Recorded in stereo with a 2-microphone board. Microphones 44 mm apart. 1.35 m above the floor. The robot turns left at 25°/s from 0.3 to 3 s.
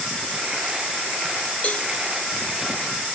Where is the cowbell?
25° left (ahead or behind), 2 m; by 1.9 s 30° left (ahead or behind), 2 m.